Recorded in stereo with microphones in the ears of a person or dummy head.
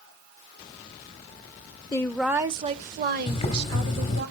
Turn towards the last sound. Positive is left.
turn(degrees=25)  # may be behind; listen again after turning